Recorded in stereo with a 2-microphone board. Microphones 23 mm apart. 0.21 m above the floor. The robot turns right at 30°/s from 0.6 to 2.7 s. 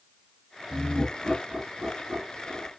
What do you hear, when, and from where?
0.7 s laughter: 65° right (ahead or behind), 2.5 m; by 2.7 s 25° right (ahead or behind), 2.5 m